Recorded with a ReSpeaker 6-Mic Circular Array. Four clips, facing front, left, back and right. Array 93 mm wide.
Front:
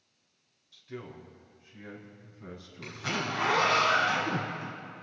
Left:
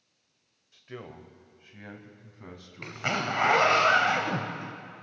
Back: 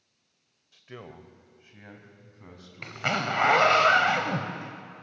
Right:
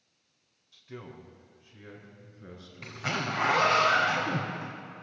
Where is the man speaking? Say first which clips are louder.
Left 2 dB, front 1 dB; 150° left, 1.9 m; by 3.8 s 105° left, 5.5 m.